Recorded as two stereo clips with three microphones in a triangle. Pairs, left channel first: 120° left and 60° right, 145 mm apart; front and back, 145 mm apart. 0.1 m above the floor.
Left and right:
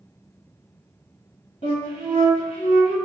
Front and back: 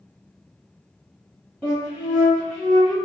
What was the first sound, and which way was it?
A flute, 85° left.